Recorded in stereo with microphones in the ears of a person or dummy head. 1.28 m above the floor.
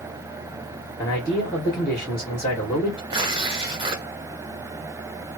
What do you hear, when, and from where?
1.0 s a man speaking: 10° left (ahead or behind), 1.9 m
3.1 s tearing paper: 30° right (ahead or behind), 1.0 m